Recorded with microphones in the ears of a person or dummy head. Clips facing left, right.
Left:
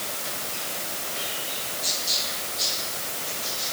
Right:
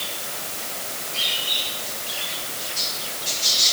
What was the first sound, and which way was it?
Only background noise.